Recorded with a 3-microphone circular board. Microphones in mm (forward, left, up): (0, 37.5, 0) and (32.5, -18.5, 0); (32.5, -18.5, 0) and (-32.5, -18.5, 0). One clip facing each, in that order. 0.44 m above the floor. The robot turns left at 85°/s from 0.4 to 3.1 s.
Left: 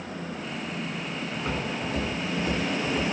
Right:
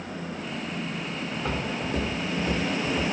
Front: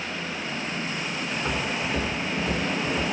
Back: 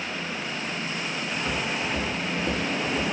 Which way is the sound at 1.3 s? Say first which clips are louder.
Right 1 dB, front 1 dB; 35° right.